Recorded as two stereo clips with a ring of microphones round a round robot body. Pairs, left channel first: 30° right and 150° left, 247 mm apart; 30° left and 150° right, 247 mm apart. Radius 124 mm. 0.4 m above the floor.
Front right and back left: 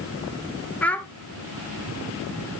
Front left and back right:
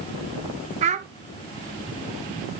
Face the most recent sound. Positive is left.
turn(degrees=-110)